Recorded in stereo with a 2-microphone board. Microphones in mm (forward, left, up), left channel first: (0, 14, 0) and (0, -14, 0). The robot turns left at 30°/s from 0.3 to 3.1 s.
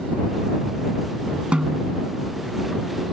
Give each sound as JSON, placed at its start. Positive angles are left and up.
{"t": 1.5, "sound": "a snare drum", "side_deg": -45}